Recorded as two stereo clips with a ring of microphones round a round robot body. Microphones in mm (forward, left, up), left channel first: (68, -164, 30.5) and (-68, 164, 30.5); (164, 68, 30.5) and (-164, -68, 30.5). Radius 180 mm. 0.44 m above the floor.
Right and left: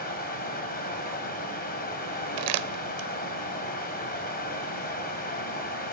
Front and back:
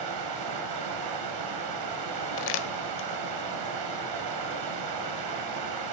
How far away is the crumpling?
About 0.7 m.